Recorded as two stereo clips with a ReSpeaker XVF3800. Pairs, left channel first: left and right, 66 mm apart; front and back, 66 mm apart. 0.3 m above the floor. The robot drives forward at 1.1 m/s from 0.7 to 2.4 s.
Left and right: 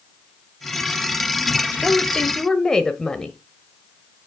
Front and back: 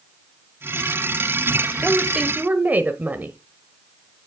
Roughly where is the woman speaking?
Ahead left.